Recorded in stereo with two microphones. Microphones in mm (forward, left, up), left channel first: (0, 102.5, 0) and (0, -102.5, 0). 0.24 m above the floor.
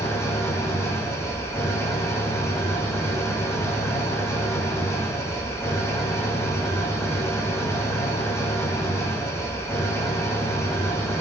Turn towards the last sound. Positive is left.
turn(degrees=15)  # may be behind; listen again after turning